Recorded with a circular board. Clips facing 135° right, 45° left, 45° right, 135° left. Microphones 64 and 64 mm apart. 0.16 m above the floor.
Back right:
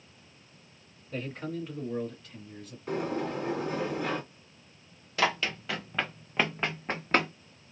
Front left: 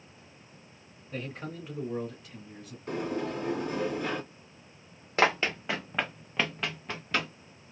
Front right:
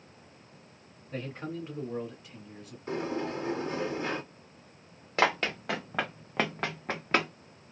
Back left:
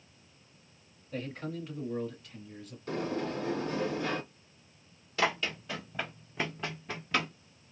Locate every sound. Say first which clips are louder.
1.1 s a man speaking: back right 3 dB, front right 1 dB; 40° right, 1.8 m; by 2.8 s 30° left, 1.5 m
2.9 s a sliding door: back right 1 dB, front right 1 dB; 50° right, 1.6 m
5.2 s running footsteps: front left 3 dB, front right 4 dB; 5° right, 0.8 m; by 7.3 s 95° right, 0.9 m